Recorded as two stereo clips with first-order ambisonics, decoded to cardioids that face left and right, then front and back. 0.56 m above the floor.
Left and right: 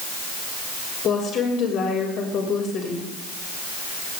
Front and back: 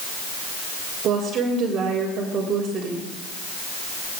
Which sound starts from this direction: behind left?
A woman speaking, at 1.0 s.